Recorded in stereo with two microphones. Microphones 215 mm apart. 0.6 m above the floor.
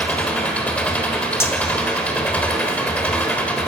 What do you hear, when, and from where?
0.0 s an engine running: 5° left (ahead or behind), 1.2 m
1.4 s cutlery clinking: 10° left (ahead or behind), 0.9 m